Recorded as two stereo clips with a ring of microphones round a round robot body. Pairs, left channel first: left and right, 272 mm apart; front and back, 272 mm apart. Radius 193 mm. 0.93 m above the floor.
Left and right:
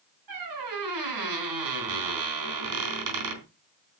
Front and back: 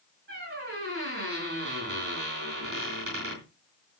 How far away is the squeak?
About 3.5 m.